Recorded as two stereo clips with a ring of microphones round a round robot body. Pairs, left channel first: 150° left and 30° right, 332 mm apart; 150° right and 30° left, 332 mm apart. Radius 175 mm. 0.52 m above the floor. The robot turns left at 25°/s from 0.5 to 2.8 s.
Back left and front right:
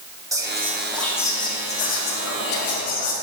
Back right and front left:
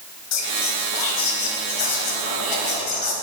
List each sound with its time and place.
0.3 s whispering: 110° right, 3 m; by 3.1 s 170° right, 3 m